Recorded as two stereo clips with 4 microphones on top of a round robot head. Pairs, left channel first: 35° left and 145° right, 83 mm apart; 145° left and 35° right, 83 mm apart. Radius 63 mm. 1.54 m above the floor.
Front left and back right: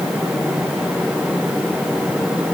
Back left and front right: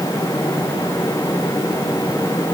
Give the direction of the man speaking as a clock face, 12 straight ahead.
I don't hear a man speaking.